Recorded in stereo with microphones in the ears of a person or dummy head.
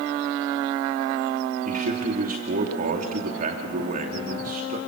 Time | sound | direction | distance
1.6 | a man speaking | 45° right (ahead or behind) | 2.5 m